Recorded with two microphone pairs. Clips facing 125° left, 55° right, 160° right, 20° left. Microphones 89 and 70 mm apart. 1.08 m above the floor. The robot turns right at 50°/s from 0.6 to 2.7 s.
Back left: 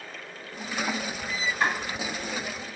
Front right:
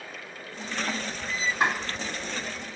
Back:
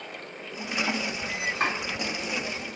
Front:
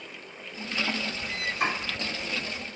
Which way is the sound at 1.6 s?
110° right.